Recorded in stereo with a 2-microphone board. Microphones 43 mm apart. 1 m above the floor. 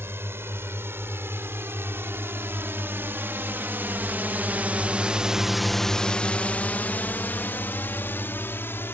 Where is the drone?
70° right (ahead or behind); by 8.9 s 60° left (ahead or behind).